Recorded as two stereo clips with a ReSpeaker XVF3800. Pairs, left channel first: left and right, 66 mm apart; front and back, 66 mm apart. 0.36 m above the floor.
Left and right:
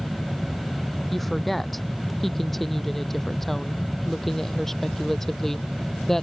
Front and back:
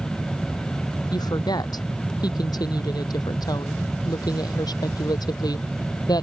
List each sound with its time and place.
1.1 s a woman speaking: straight ahead; by 6.2 s 5° left